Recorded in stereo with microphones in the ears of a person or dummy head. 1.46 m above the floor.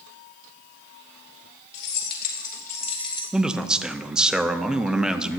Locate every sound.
1.7 s keys jangling: 60° left (ahead or behind), 3 m; by 3.2 s 20° left (ahead or behind), 2 m
3.3 s a man speaking: centre (ahead or behind), 0.7 m